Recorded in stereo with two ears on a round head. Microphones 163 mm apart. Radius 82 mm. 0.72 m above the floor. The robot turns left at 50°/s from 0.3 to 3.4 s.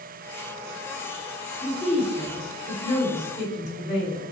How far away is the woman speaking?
About 2 m.